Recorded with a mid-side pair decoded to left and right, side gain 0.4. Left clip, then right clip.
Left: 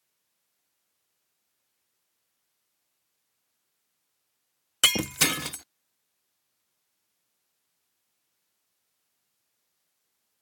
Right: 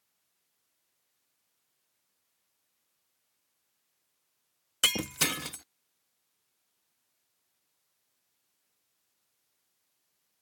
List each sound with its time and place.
4.8 s breaking glass: 35° left